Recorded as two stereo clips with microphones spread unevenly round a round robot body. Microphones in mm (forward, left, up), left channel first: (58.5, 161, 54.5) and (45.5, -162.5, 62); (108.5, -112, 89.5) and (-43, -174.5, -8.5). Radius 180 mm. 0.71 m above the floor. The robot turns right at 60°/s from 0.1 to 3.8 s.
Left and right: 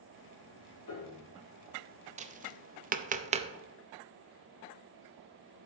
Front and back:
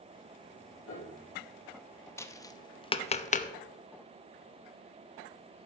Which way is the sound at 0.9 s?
60° left.